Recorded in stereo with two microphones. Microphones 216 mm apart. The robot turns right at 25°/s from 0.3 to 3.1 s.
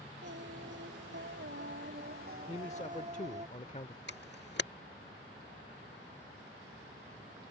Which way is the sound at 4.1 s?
55° left (ahead or behind).